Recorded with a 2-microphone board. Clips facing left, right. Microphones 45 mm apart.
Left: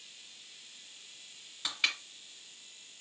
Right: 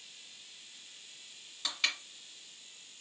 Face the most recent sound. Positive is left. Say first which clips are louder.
# left 2 dB
turn(degrees=10)  # may be behind; listen again after turning